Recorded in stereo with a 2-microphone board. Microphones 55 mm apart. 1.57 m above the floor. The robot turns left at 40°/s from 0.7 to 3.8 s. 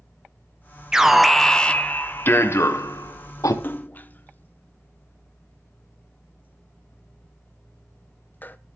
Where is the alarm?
170° right, 1.3 m; by 3.5 s 85° left, 1.3 m.